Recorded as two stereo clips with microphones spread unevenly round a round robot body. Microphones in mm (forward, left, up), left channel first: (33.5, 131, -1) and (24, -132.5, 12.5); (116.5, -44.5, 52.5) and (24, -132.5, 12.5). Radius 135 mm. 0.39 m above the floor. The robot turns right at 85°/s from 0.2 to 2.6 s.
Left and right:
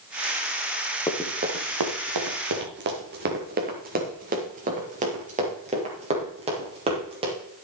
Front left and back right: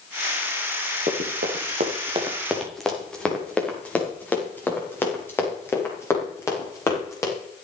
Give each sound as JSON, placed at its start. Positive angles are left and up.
{"t": 1.1, "sound": "running footsteps", "azimuth_deg": 165, "distance_m": 3.0}